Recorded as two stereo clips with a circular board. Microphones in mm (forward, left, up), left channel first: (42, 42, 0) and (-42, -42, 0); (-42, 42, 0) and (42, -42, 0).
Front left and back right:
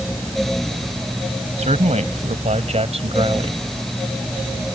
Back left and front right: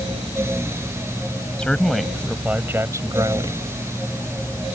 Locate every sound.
1.6 s a man speaking: 145° right; by 3.6 s 95° right